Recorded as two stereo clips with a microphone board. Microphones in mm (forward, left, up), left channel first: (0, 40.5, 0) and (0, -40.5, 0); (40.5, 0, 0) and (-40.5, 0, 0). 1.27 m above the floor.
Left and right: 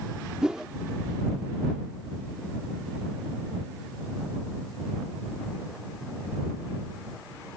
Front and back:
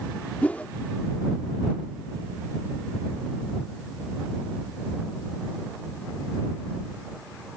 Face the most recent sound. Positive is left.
turn(degrees=-30)